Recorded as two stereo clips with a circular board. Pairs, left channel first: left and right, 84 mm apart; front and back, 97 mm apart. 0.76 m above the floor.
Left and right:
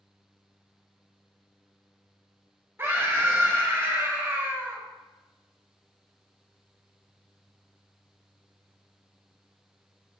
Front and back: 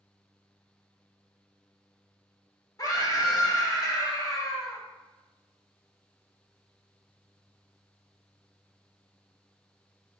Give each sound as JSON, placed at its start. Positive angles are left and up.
{"t": 2.8, "sound": "a scream", "azimuth_deg": -35, "distance_m": 1.0}